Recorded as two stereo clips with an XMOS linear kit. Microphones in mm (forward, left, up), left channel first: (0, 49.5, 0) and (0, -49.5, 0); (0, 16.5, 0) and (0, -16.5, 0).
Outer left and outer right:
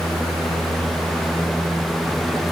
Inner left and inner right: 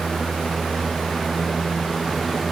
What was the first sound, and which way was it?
Only background noise.